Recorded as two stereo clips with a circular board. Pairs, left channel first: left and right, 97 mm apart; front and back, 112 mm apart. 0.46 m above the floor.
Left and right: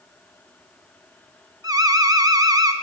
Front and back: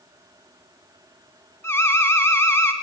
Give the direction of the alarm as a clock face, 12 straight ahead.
2 o'clock.